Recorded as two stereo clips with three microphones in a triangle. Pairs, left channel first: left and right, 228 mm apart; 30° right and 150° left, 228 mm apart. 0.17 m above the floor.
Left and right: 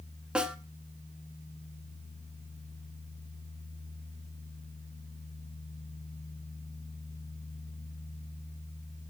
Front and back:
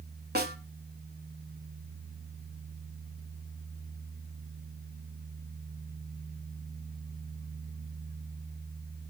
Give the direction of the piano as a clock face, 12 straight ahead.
I don't hear a piano.